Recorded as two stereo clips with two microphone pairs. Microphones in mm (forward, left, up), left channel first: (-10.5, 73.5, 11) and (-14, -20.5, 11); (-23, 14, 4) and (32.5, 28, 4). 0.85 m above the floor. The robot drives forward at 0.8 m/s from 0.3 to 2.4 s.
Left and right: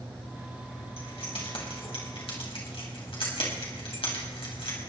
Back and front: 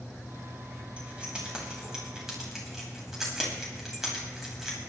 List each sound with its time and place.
1.0 s keys jangling: 85° left, 4.5 m; by 4.8 s 100° left, 4.5 m